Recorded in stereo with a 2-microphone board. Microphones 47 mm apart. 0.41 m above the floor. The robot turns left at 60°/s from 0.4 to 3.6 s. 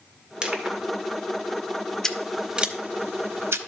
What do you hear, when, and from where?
0.4 s crushing: 20° right (ahead or behind), 1.3 m; by 0.8 s 25° right (ahead or behind), 1.3 m
2.0 s scissors: 10° left (ahead or behind), 0.7 m; by 3.6 s 75° right (ahead or behind), 0.7 m